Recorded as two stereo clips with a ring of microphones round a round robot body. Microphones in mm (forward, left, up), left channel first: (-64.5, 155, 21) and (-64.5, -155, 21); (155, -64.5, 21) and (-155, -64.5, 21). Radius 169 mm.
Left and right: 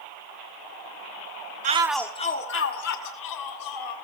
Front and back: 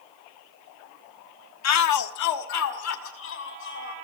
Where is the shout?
25° right, 1.0 m; by 3.9 s 60° left, 3 m.